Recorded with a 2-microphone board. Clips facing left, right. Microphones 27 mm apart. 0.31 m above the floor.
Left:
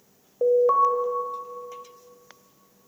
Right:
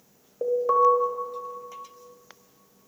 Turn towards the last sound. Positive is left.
turn(degrees=10)  # may be behind; listen again after turning